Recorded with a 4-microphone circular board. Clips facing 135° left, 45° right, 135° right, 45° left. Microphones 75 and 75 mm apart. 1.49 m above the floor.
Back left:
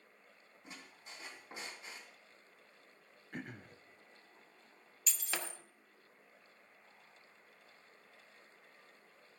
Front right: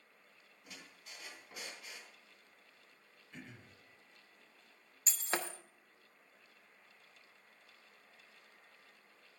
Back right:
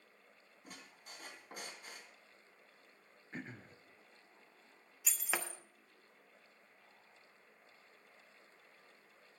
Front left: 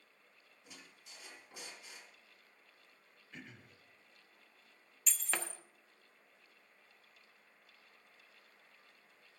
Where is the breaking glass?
55° right, 1.0 m.